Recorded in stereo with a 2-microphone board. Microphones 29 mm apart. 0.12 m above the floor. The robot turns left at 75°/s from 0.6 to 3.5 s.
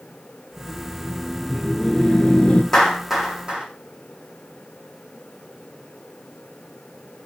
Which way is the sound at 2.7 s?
15° left (ahead or behind).